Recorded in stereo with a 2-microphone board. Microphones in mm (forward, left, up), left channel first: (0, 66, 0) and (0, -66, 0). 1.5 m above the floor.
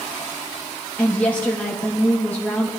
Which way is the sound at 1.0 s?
10° left (ahead or behind).